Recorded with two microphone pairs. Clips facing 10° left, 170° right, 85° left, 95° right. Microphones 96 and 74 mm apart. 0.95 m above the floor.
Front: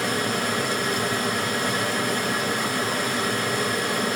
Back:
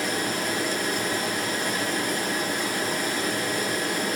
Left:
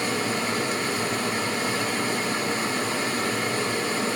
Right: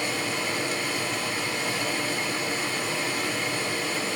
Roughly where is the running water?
Ahead left.